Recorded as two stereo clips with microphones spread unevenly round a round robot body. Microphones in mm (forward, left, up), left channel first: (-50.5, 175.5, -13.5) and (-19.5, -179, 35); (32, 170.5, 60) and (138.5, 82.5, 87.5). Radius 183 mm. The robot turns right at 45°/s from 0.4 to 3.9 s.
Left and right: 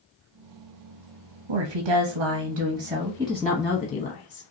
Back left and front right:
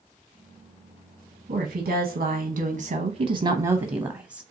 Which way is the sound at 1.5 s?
80° right.